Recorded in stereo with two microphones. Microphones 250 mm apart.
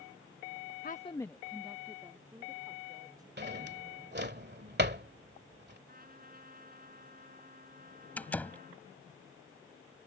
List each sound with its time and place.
0.8 s a woman speaking: 40° left (ahead or behind); by 3.3 s 15° right (ahead or behind)
3.4 s a drawer: 45° right (ahead or behind)
5.9 s a trumpet: 35° right (ahead or behind)
8.2 s a door slam: 5° left (ahead or behind)